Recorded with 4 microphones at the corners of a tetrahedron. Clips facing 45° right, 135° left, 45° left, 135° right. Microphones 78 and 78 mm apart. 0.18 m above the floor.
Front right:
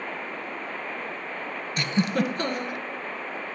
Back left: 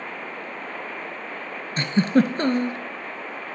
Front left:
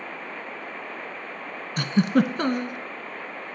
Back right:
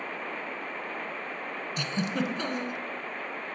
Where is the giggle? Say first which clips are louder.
Back left 6 dB, front left 10 dB; 80° left, 0.7 m.